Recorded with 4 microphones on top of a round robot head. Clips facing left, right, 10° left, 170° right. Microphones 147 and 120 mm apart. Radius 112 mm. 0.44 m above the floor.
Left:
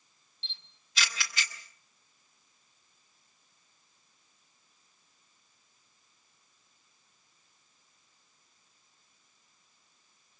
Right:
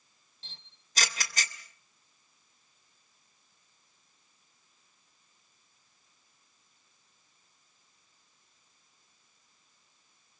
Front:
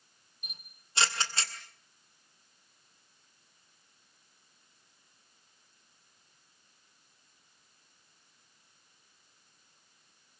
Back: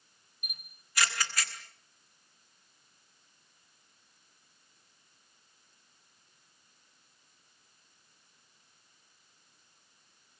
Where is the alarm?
I don't hear an alarm.